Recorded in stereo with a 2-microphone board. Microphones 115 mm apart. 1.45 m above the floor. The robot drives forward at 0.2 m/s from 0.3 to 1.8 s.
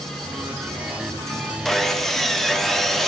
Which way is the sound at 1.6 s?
Centre (ahead or behind).